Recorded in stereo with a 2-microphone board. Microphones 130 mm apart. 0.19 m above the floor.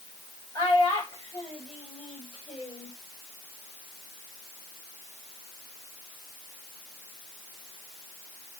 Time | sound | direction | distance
0.6 | a child speaking | 35° left (ahead or behind) | 9.5 m